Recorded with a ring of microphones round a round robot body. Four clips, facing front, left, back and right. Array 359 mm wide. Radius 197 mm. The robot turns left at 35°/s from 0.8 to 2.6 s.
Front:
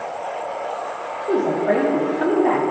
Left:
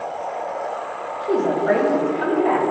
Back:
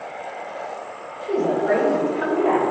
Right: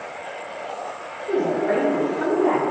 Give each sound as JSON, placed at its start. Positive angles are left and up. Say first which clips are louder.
{"t": 1.2, "sound": "a woman speaking", "louder": "left 2 dB, front 1 dB", "azimuth_deg": 35, "distance_m": 3.0}